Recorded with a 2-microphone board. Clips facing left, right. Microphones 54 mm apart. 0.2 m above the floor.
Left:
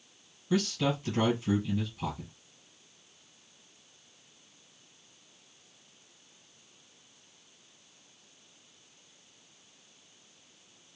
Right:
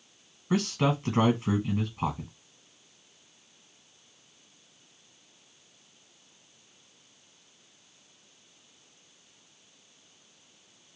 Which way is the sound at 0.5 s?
50° right (ahead or behind).